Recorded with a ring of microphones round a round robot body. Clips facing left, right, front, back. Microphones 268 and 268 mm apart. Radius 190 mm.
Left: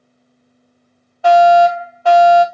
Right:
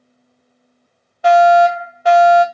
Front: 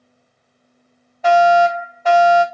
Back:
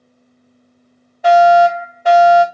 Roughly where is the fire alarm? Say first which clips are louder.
Left 1 dB, back 3 dB; behind right.